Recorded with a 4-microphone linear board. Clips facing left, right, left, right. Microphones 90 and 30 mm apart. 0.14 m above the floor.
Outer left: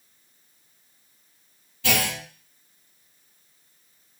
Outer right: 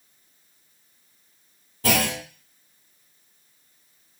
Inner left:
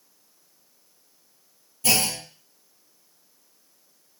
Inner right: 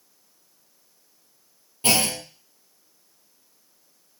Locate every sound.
1.8 s a clunk: 40° right (ahead or behind), 0.7 m